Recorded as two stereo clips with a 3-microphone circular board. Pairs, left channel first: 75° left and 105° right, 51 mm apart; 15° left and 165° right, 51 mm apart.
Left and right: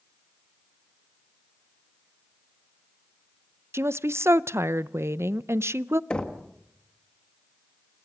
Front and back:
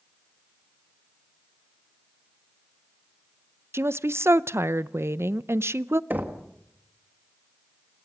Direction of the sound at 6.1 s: 145° left.